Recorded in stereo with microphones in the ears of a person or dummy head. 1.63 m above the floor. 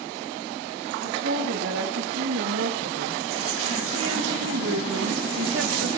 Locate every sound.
1.0 s a woman speaking: 70° right (ahead or behind), 4 m